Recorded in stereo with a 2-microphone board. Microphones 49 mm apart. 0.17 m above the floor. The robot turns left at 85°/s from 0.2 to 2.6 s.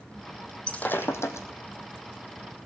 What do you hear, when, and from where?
0.7 s breaking glass: 20° left (ahead or behind), 1.9 m; by 1.5 s 85° left, 1.9 m